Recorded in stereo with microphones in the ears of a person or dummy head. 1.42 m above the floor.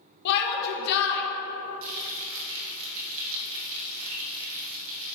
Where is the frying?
65° right (ahead or behind), 1.8 m.